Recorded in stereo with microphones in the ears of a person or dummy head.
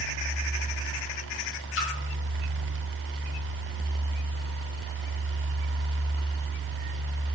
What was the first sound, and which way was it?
A splash, 70° left (ahead or behind).